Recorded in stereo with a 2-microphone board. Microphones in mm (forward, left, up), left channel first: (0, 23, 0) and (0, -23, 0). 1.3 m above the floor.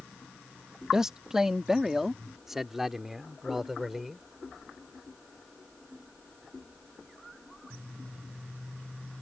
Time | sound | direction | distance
0.9 | a man speaking | 15° right (ahead or behind) | ?